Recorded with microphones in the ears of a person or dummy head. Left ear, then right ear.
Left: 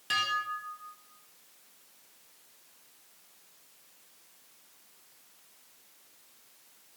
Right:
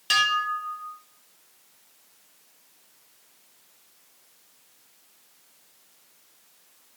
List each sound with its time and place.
0.1 s dishes clattering: 35° right (ahead or behind), 3 m